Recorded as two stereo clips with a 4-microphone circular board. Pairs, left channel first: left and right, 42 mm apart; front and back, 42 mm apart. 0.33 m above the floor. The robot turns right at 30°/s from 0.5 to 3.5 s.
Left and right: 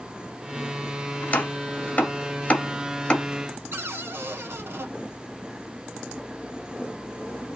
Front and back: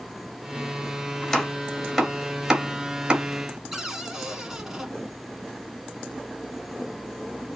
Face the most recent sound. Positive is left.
turn(degrees=-100)